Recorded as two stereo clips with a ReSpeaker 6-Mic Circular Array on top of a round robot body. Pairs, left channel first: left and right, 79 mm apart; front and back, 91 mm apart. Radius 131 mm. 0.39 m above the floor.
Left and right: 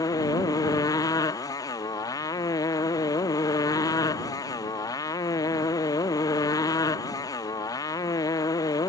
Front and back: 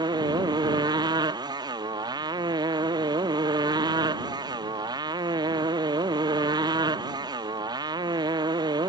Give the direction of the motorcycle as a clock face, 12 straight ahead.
7 o'clock.